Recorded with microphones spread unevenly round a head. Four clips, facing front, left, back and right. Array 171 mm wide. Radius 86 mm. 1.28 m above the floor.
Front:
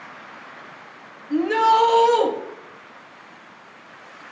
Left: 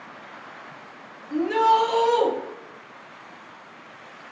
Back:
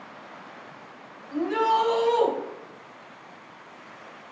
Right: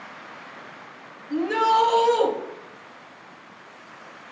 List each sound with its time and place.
1.3 s a shout: 15° right, 1.1 m